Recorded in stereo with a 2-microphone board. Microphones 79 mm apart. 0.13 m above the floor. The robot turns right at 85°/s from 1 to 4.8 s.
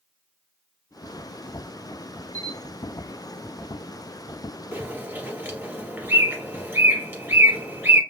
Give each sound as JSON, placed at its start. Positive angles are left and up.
{"t": 2.3, "sound": "a camera shutter", "side_deg": 20, "distance_m": 0.6}
{"t": 4.7, "sound": "a bird", "side_deg": -25, "distance_m": 1.7}